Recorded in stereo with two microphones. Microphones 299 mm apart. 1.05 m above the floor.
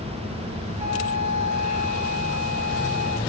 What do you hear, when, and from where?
0.8 s a flute: 60° left (ahead or behind), 5.5 m